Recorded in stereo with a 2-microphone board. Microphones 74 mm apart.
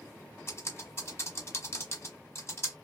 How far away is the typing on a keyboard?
About 1.4 m.